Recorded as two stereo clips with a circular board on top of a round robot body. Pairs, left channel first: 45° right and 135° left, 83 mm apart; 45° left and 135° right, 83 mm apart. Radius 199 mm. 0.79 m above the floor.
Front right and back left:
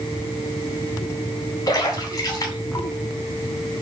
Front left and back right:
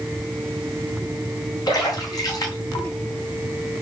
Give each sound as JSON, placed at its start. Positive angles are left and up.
{"t": 1.7, "sound": "a splash", "azimuth_deg": 0, "distance_m": 4.0}